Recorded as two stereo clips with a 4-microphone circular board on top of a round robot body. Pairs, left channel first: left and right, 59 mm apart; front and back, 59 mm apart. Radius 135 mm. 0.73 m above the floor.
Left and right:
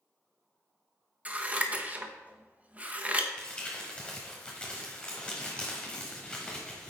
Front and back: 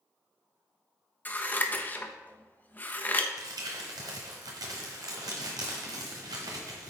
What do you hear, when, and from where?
1.2 s scissors: 40° right, 1.2 m
3.4 s crumpling: 165° left, 1.0 m